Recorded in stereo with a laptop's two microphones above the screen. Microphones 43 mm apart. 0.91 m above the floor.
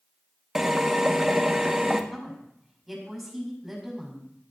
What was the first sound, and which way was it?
A drill, 10° right (ahead or behind).